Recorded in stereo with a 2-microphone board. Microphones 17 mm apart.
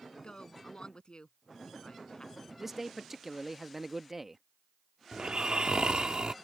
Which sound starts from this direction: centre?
A man speaking, at 2.6 s.